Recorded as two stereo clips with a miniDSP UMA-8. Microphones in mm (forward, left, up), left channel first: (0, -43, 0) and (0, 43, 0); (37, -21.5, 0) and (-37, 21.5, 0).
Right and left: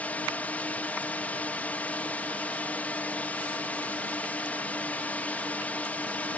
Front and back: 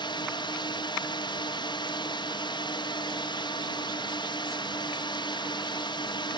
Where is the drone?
20° right.